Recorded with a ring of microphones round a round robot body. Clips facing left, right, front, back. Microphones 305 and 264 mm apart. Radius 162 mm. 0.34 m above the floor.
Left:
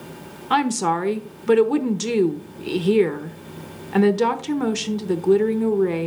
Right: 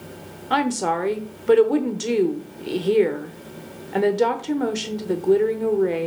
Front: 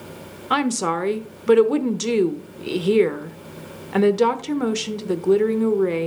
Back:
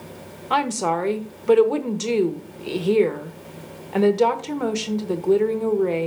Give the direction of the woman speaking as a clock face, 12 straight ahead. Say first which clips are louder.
Left 1 dB, front 2 dB; 11 o'clock.